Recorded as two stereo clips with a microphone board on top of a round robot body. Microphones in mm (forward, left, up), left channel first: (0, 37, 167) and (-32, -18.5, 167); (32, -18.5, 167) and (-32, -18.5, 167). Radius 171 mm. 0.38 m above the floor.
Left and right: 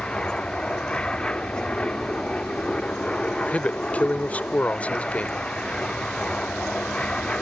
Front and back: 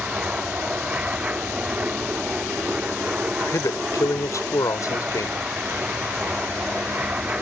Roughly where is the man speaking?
Ahead.